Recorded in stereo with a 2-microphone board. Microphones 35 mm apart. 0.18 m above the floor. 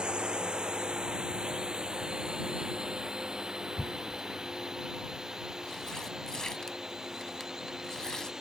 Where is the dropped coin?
No dropped coin in this recording.